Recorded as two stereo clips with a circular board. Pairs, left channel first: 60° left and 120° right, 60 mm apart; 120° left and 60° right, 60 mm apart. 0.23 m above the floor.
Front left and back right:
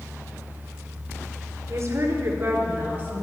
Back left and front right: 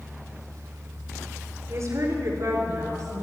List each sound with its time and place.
1.7 s a woman speaking: 85° right, 2.5 m; by 3.2 s 65° right, 3 m